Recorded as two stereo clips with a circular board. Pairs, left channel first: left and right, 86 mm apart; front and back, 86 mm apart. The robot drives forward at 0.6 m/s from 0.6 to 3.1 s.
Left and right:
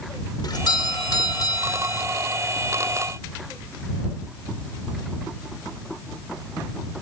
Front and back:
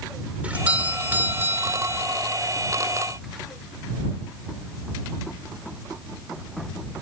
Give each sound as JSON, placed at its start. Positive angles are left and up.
{"t": 0.4, "sound": "a doorbell", "azimuth_deg": 110}